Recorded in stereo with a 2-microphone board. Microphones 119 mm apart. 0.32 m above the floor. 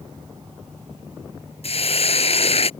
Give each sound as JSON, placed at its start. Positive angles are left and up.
{"t": 1.6, "sound": "a hiss", "side_deg": 55}